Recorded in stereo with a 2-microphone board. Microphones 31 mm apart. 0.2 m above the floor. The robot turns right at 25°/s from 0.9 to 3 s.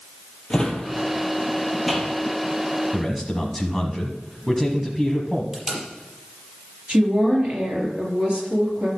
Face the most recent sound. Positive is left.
turn(degrees=-40)  # may be behind; listen again after turning